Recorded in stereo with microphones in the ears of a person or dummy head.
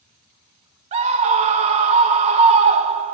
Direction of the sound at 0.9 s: 35° right (ahead or behind).